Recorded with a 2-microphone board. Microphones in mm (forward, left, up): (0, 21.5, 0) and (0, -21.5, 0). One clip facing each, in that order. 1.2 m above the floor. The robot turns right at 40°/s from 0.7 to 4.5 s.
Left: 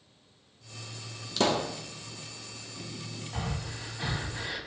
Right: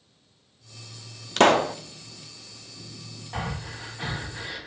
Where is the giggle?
No giggle in this recording.